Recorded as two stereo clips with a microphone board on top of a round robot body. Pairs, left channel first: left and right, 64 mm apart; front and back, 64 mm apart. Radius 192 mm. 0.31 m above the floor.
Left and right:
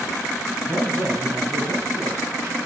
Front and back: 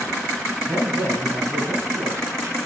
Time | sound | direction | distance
0.7 | a man speaking | 140° right | 4.5 m